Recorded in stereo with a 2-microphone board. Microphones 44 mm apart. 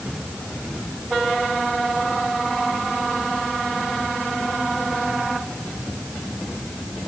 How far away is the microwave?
No microwave in this recording.